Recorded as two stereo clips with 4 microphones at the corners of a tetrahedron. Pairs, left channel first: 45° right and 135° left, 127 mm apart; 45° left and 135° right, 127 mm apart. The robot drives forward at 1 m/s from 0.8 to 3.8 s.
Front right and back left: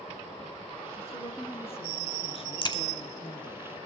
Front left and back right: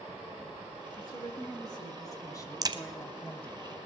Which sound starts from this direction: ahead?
A woman speaking, at 1.0 s.